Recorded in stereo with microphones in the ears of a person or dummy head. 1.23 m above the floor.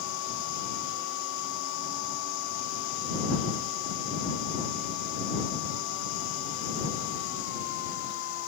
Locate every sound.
0.0 s a machine running: 70° left (ahead or behind)